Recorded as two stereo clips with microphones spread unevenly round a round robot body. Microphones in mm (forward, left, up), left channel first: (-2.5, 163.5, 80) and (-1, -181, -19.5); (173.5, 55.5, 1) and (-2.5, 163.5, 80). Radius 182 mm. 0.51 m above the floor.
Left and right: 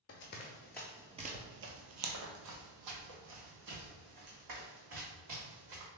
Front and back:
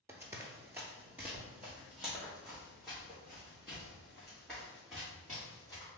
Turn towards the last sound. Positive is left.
turn(degrees=-125)